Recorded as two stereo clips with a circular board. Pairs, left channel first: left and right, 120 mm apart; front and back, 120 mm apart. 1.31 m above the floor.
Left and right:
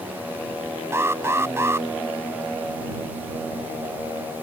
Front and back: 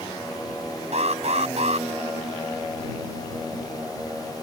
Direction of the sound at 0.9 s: 160° right.